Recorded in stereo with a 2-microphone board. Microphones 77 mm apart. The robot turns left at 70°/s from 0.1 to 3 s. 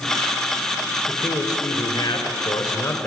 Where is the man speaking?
155° left, 3 m; by 3.1 s 20° left, 3 m.